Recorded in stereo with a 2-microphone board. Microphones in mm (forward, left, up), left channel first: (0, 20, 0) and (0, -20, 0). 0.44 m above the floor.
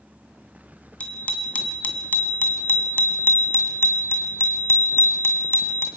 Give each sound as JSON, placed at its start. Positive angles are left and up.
{"t": 1.0, "sound": "a bicycle bell", "side_deg": 35, "distance_m": 3.0}